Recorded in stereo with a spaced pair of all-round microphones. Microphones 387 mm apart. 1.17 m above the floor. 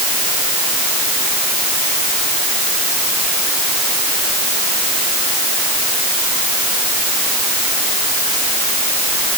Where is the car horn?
No car horn in this recording.